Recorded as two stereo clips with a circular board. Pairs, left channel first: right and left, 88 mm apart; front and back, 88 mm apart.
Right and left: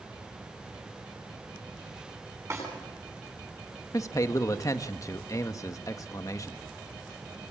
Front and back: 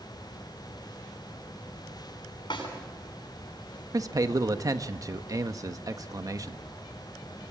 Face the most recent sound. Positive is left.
turn(degrees=-135)